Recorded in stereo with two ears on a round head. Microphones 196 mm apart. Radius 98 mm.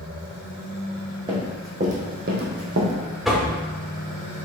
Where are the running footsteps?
20° right (ahead or behind), 1.5 m; by 2.9 s 60° right (ahead or behind), 1.3 m.